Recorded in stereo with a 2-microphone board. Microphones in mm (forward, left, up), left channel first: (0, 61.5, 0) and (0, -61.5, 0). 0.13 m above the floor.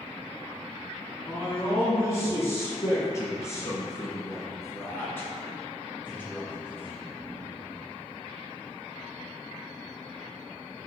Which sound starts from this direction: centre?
A man speaking, at 1.3 s.